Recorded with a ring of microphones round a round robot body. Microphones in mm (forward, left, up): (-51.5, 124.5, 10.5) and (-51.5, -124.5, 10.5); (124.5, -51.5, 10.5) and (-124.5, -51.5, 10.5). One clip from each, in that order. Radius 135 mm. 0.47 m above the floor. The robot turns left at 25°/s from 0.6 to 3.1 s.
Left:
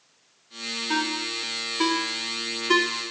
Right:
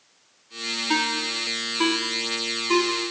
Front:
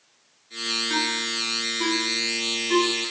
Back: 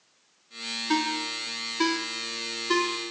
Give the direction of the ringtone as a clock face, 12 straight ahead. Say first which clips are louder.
Right 3 dB, front 3 dB; 6 o'clock.